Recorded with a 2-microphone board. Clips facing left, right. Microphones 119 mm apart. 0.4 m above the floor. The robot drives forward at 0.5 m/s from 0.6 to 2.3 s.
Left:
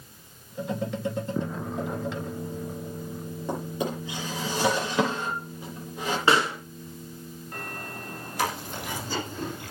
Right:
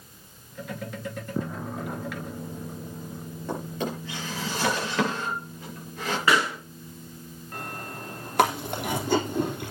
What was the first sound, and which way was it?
A drawer, 15° left (ahead or behind).